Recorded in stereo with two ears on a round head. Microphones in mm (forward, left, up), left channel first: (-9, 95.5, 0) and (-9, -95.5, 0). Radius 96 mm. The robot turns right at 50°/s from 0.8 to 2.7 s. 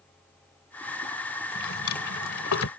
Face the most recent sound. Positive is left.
turn(degrees=70)  # may be behind; listen again after turning